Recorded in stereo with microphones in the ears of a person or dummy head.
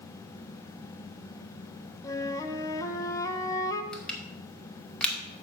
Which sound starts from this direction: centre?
Crushing, at 3.9 s.